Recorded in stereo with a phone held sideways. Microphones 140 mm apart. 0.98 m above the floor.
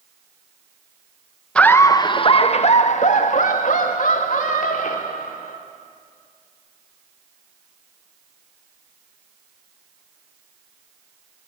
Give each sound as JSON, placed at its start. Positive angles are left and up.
{"t": 1.6, "sound": "laughter", "side_deg": 5, "distance_m": 0.8}